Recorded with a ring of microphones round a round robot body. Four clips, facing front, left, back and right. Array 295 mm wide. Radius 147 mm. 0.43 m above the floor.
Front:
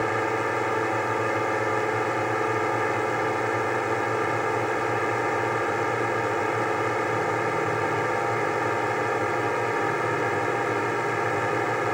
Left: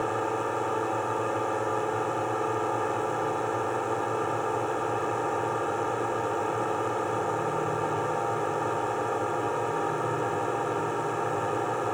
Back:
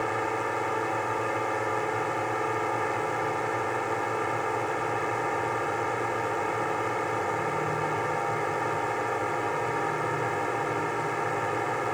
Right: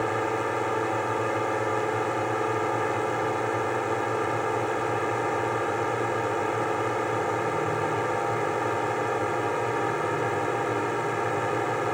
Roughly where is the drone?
Ahead right.